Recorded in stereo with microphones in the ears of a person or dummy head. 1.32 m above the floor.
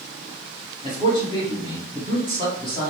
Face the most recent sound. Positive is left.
turn(degrees=25)  # may be behind; listen again after turning